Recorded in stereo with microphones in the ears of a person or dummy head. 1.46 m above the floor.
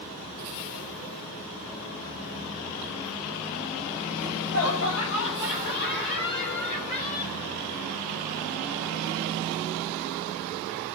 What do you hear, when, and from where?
4.2 s laughter: 85° left, 1.1 m; by 7.4 s 35° left (ahead or behind), 2.5 m